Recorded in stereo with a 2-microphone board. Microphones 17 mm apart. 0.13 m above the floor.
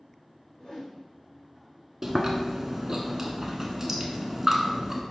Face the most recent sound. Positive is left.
turn(degrees=-15)  # may be behind; listen again after turning